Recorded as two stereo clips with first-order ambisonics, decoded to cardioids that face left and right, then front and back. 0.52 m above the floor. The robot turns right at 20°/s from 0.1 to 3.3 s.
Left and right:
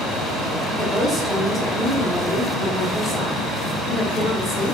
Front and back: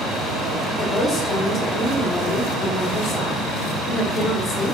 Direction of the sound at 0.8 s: 30° right.